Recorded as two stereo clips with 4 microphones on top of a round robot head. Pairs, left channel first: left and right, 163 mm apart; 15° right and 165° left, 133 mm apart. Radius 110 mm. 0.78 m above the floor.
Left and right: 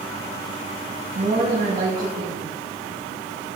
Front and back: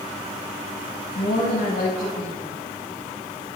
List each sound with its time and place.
1.1 s a woman speaking: 40° right, 6 m